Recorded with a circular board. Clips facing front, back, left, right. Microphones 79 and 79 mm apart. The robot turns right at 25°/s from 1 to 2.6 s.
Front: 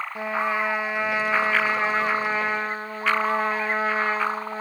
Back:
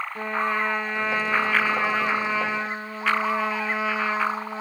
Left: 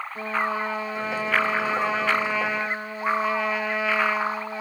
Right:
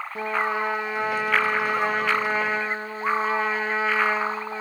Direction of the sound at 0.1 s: 75° right.